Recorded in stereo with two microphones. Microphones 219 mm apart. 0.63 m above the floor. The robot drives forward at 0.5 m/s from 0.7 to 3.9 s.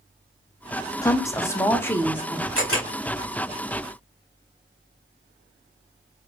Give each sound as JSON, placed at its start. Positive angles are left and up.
{"t": 1.0, "sound": "a woman speaking", "side_deg": 15, "distance_m": 0.5}
{"t": 2.5, "sound": "a camera shutter", "side_deg": 70, "distance_m": 1.7}